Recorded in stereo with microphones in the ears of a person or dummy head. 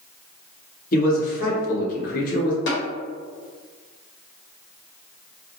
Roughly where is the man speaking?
Left.